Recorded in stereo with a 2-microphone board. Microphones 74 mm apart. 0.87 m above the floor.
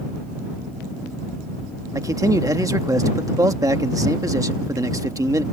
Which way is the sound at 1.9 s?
50° right (ahead or behind).